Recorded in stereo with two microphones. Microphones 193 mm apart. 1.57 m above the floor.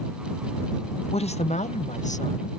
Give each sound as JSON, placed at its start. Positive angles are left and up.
{"t": 1.1, "sound": "a woman speaking", "side_deg": 30}